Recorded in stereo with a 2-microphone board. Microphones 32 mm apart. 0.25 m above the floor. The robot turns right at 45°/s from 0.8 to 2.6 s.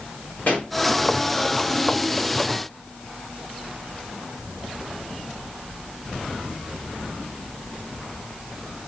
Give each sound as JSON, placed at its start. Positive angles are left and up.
{"t": 0.5, "sound": "a pop", "side_deg": 65, "distance_m": 3.5}